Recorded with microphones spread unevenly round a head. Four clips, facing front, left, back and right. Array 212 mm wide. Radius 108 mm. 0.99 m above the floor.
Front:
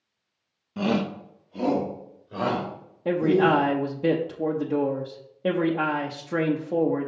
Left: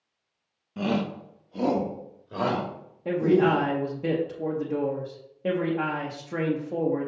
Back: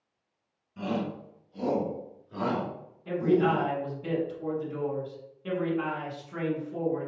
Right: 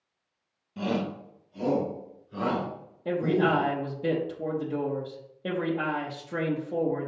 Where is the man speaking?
5° left, 1.0 m.